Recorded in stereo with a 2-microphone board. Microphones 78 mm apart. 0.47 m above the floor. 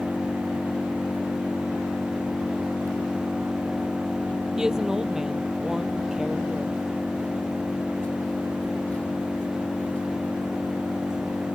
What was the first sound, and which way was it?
An engine running, 15° left (ahead or behind).